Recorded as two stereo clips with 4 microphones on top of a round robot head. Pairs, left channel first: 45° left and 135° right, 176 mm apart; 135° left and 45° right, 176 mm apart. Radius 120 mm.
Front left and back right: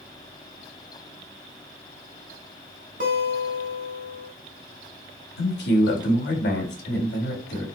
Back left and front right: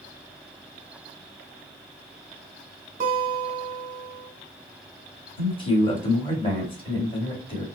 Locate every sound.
3.0 s a guitar: 95° right, 1.0 m
5.4 s a man speaking: 75° left, 2.0 m